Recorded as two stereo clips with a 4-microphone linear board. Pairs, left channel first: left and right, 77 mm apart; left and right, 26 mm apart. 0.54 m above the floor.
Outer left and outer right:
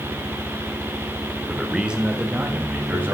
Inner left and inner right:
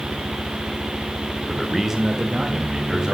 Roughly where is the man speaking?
Centre.